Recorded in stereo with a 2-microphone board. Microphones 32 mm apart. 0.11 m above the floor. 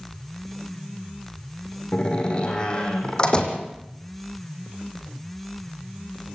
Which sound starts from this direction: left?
A door slam, at 1.9 s.